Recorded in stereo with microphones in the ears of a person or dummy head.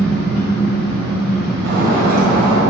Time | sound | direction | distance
0.0 | an engine running | 5° right (ahead or behind) | 1.4 m
1.6 | breaking glass | 55° right (ahead or behind) | 1.4 m